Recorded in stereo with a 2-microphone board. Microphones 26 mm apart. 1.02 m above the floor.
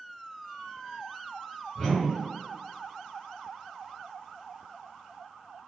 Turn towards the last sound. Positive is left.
turn(degrees=30)  # may be behind; listen again after turning